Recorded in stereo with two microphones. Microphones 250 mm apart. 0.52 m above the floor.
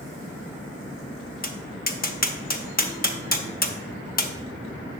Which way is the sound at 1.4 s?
35° left (ahead or behind).